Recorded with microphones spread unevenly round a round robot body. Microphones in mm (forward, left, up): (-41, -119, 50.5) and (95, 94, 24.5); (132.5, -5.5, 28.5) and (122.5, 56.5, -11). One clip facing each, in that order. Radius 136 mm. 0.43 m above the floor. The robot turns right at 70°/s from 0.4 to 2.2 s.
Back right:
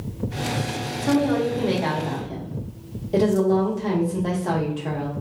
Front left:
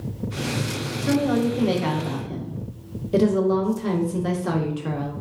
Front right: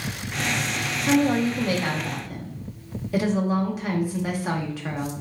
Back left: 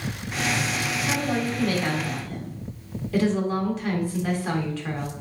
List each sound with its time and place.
1.0 s a woman speaking: 5° right, 0.8 m; by 5.1 s 75° left, 0.8 m